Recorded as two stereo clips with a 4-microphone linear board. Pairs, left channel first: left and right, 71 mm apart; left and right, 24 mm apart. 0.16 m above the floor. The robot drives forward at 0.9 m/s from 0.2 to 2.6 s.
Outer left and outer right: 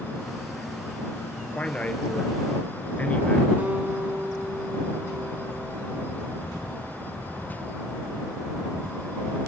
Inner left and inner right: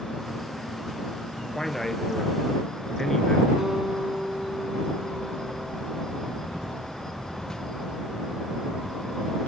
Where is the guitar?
25° right (ahead or behind), 1.3 m.